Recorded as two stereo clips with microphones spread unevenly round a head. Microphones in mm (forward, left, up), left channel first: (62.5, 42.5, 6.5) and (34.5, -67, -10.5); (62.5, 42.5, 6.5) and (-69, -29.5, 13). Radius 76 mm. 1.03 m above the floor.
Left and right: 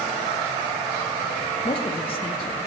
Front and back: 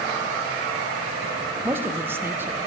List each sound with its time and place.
1.6 s a man speaking: 135° left, 0.7 m